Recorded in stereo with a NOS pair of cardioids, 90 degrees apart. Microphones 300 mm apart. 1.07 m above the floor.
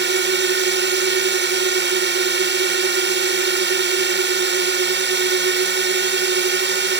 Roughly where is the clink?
I don't hear a clink.